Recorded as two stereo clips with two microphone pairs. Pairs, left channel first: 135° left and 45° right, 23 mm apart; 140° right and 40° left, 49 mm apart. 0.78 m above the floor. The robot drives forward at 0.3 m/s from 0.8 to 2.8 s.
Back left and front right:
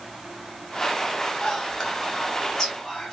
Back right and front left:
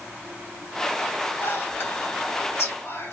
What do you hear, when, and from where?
1.4 s whispering: 170° right, 1.1 m; by 3.1 s 175° right, 1.5 m